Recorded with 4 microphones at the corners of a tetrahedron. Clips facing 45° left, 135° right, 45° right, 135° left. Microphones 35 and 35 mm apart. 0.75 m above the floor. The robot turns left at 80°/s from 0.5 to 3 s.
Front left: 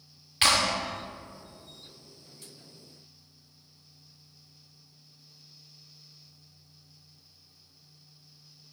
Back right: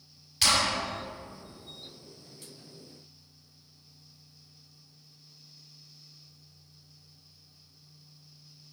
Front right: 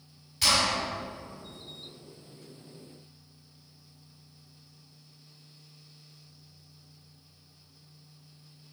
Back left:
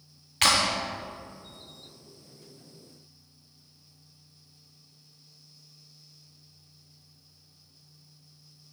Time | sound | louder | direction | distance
0.4 | a clap | front left 2 dB, back left 2 dB | 105° left | 1.7 m